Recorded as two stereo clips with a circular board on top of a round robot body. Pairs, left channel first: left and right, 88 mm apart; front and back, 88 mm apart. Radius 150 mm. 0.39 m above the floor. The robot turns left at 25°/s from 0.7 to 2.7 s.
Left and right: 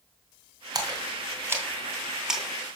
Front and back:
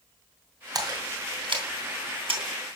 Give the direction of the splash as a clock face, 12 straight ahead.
5 o'clock.